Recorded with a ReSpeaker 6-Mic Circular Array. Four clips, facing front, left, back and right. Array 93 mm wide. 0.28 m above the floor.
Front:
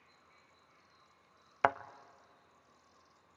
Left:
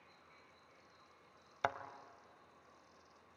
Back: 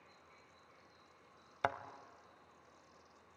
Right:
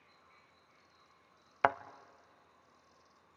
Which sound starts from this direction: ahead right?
A thud, at 1.6 s.